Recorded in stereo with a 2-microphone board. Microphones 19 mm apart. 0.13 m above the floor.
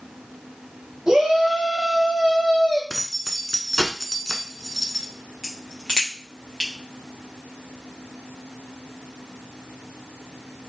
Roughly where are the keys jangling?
Centre.